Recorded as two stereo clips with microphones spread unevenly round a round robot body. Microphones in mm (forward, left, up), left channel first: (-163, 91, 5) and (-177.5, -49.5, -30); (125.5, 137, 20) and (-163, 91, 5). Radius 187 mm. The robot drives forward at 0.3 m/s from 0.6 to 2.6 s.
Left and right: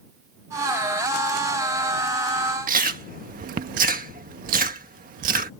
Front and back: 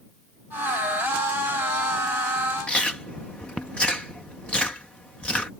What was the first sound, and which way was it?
Chewing, 80° right.